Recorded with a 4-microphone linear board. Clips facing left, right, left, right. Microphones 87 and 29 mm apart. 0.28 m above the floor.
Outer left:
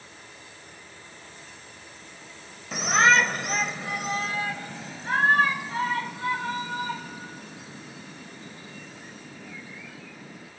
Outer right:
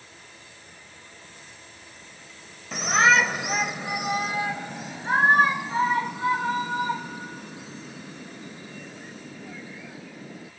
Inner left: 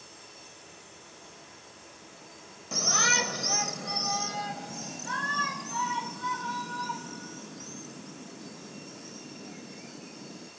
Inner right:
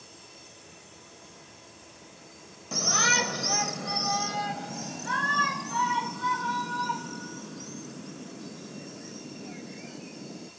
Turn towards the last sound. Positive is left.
turn(degrees=-20)  # may be behind; listen again after turning